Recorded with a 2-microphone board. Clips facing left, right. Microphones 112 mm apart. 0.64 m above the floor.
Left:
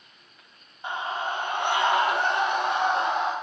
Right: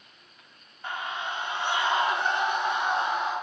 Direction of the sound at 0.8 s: 20° left (ahead or behind).